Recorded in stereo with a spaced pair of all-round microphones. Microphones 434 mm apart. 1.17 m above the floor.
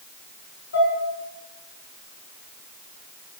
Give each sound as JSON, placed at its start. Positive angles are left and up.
{"t": 0.7, "sound": "dishes clattering", "side_deg": 35, "distance_m": 7.5}